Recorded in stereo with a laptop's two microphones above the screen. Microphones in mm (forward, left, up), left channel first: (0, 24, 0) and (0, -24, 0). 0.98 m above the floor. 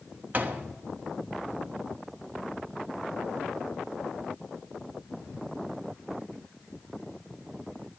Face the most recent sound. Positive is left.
turn(degrees=-40)  # may be behind; listen again after turning